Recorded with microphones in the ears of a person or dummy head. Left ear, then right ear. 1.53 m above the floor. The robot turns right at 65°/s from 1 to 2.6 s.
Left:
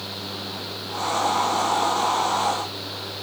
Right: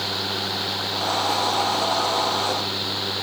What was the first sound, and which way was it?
Only background noise.